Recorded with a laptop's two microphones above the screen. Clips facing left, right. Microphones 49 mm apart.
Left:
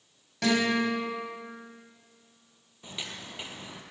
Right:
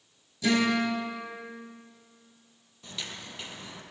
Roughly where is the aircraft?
No aircraft in this recording.